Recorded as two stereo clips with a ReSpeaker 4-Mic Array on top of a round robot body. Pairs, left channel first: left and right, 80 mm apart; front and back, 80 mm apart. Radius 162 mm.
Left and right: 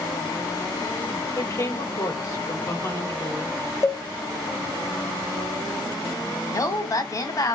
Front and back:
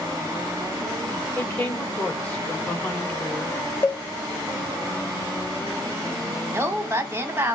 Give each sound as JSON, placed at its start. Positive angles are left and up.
{"t": 1.4, "sound": "a woman speaking", "azimuth_deg": 65, "distance_m": 2.0}
{"t": 3.8, "sound": "a cowbell", "azimuth_deg": 55, "distance_m": 1.0}
{"t": 6.5, "sound": "a woman speaking", "azimuth_deg": 125, "distance_m": 1.5}